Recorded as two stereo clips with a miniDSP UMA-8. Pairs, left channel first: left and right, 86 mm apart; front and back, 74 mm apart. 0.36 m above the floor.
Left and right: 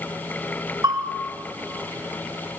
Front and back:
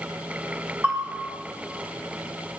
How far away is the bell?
About 2 m.